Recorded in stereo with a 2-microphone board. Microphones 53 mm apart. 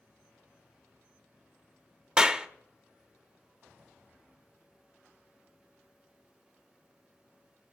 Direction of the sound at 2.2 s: 15° right (ahead or behind).